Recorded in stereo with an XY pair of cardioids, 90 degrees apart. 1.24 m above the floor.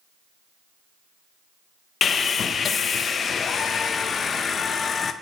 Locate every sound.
2.0 s sawing: 55° left, 0.7 m